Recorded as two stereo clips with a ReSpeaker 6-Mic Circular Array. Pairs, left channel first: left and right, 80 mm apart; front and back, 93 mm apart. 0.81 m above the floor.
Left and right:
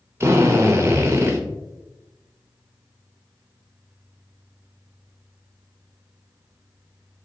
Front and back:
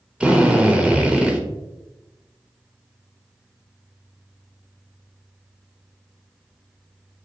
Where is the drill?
110° right, 0.7 m.